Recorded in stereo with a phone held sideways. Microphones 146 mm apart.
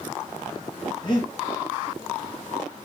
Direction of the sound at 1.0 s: 35° left (ahead or behind).